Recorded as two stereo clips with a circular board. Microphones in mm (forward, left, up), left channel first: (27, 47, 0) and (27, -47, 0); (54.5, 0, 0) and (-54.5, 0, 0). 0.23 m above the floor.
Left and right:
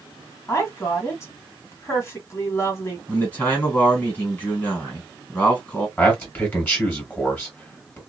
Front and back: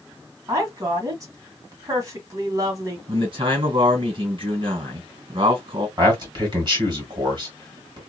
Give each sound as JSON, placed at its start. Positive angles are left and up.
{"t": 0.5, "sound": "a woman speaking", "azimuth_deg": 135, "distance_m": 1.7}
{"t": 3.1, "sound": "a man speaking", "azimuth_deg": 155, "distance_m": 2.5}
{"t": 6.0, "sound": "a man speaking", "azimuth_deg": 150, "distance_m": 2.5}